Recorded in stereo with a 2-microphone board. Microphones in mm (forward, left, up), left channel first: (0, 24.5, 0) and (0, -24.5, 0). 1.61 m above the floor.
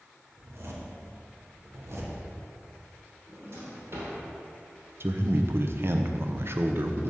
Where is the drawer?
55° right (ahead or behind), 2.5 m.